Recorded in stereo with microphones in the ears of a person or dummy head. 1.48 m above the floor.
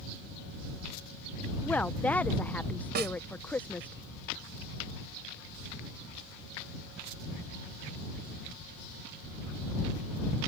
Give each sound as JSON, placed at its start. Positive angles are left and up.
{"t": 1.6, "sound": "a woman speaking", "side_deg": 10}
{"t": 3.0, "sound": "a snare drum", "side_deg": -50}